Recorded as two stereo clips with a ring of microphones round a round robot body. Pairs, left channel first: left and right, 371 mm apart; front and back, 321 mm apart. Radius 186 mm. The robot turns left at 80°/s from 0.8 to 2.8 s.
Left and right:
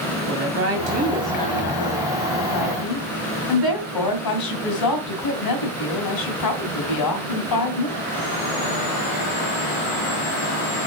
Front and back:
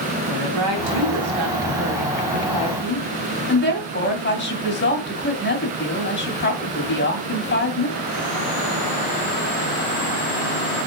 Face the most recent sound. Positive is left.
turn(degrees=55)